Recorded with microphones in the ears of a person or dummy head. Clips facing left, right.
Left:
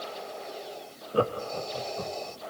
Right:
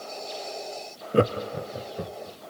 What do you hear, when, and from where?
1.1 s laughter: 30° right (ahead or behind), 0.5 m; by 2.4 s 20° right (ahead or behind), 2 m